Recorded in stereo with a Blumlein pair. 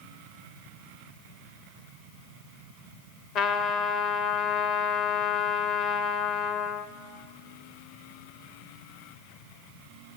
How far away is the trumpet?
About 1.4 m.